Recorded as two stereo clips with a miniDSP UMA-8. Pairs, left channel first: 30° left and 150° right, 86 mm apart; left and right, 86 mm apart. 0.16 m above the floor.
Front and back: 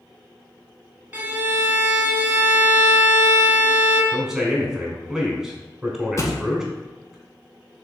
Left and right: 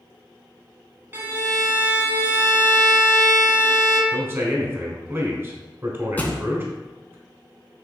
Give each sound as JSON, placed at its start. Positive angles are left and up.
{"t": 1.1, "sound": "a violin", "azimuth_deg": -110, "distance_m": 0.9}
{"t": 4.1, "sound": "a man speaking", "azimuth_deg": -75, "distance_m": 1.1}
{"t": 6.2, "sound": "a thud", "azimuth_deg": 30, "distance_m": 0.7}